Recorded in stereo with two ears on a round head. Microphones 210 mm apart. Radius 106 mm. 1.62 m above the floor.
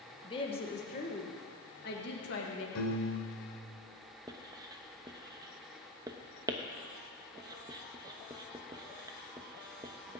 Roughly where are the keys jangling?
I don't hear keys jangling.